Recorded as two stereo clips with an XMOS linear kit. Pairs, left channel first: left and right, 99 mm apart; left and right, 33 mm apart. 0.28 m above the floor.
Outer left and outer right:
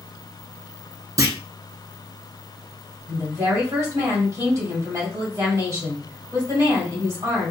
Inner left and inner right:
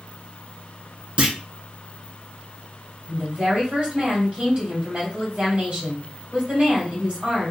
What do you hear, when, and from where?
1.2 s a clunk: 35° right (ahead or behind), 0.5 m
3.1 s a woman speaking: 35° right (ahead or behind), 1.6 m